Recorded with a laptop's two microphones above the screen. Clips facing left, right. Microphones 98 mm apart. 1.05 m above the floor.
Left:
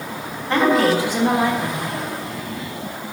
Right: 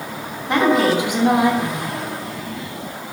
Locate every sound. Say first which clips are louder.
0.5 s a woman speaking: even; 15° right (ahead or behind), 3 m